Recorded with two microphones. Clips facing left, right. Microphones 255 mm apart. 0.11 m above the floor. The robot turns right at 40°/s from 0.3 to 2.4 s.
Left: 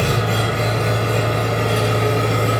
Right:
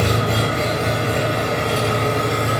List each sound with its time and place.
0.0 s an engine running: 45° right, 1.6 m; by 2.6 s 40° left, 1.6 m